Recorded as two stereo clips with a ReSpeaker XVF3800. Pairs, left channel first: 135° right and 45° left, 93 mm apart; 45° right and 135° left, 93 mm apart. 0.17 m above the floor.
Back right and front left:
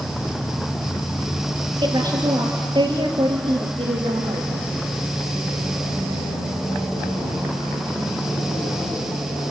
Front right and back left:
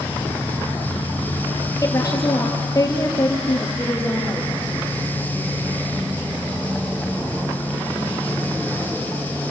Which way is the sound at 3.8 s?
25° left.